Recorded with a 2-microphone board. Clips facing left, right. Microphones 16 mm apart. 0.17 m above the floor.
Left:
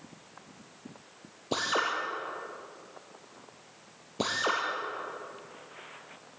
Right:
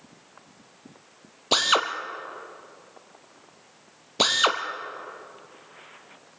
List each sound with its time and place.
1.5 s a drill: 60° right (ahead or behind), 1.9 m